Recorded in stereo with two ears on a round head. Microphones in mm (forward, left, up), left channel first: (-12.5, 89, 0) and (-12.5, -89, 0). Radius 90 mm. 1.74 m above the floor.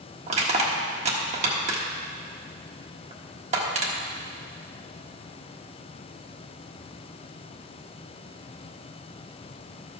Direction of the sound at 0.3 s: 40° right (ahead or behind).